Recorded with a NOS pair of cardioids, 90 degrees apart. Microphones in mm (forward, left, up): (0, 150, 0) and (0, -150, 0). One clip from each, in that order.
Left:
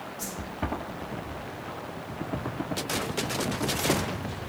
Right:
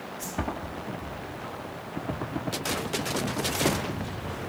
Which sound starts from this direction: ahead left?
A whoosh, at 0.2 s.